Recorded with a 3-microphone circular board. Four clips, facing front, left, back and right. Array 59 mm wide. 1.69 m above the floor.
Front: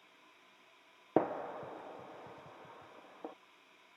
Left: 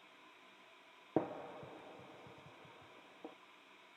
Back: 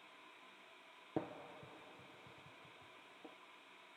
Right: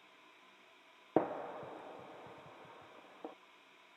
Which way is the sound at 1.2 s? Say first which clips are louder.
Right 4 dB, front 12 dB; 35° right.